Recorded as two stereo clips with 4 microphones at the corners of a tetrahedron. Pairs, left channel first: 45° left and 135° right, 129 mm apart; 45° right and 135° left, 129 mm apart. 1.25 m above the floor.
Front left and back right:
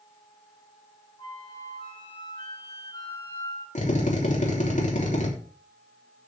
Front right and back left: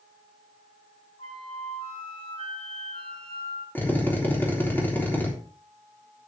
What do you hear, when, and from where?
1.2 s a flute: 5° right, 7 m
3.8 s a drill: 30° left, 3.5 m